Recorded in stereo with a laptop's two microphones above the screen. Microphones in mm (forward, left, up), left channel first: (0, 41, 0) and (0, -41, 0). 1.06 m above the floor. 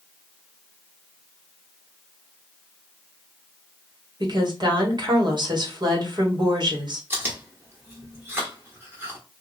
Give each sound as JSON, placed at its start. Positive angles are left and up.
{"t": 4.2, "sound": "a woman speaking", "side_deg": -60, "distance_m": 1.5}
{"t": 7.1, "sound": "chewing", "side_deg": -25, "distance_m": 1.1}